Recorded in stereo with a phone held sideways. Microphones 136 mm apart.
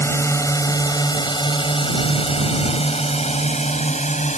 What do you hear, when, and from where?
0.0 s a drone: 20° left (ahead or behind); by 4.4 s 65° left (ahead or behind)